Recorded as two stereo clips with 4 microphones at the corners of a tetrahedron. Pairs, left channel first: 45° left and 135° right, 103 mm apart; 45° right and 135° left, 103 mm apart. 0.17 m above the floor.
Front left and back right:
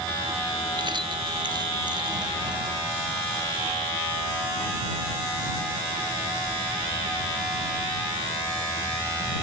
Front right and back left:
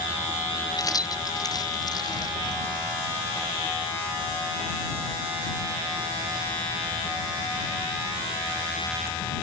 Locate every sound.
0.8 s keys jangling: 95° right; by 2.6 s 90° right